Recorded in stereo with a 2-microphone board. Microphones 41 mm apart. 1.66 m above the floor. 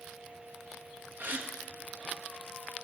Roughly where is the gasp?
Right.